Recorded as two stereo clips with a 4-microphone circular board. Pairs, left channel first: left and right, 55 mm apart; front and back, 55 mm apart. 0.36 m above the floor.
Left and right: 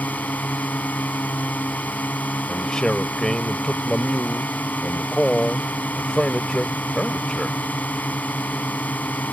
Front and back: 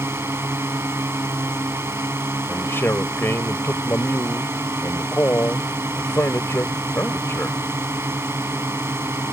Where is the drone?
145° left.